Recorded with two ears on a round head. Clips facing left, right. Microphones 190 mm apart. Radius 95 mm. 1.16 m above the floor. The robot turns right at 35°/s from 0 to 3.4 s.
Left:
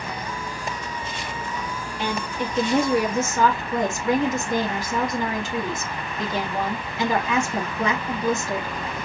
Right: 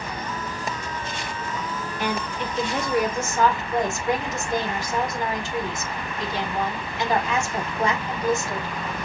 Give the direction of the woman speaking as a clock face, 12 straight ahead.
11 o'clock.